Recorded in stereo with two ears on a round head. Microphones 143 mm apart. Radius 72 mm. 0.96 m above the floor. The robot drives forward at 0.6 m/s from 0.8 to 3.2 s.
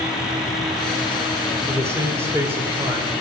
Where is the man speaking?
20° right (ahead or behind), 3 m; by 3.1 s 15° right (ahead or behind), 3.5 m.